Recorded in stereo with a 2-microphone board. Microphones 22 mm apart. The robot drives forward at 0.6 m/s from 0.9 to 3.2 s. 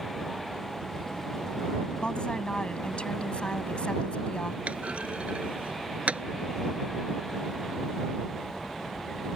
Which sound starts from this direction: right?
A clunk, at 4.7 s.